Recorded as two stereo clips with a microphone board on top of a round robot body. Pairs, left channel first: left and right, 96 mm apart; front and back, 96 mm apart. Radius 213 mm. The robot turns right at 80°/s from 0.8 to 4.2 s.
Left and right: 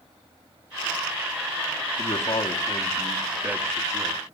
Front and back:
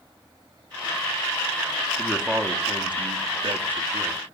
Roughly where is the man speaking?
Left.